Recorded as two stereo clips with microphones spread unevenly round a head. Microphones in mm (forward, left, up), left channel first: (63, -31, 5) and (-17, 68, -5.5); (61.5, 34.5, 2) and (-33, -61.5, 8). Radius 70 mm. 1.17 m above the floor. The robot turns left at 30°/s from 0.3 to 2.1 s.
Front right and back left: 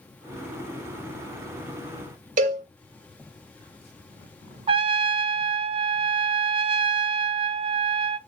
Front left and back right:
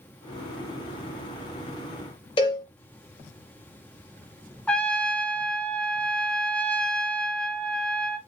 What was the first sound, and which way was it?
A cowbell, 105° left.